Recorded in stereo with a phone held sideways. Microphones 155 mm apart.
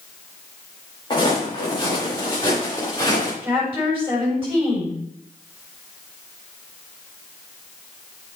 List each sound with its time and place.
1.1 s footsteps: 30° left (ahead or behind), 4.5 m; by 3.3 s 25° left (ahead or behind), 6 m
3.4 s a woman speaking: 15° right (ahead or behind), 5.5 m